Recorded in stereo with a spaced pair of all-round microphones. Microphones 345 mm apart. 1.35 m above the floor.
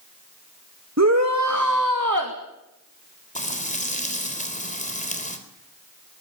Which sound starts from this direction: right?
A shout, at 1.0 s.